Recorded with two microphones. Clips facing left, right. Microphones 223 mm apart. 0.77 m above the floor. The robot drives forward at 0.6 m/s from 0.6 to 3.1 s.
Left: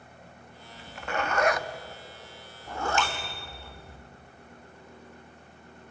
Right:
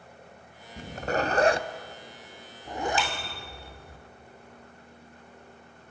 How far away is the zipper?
About 0.6 m.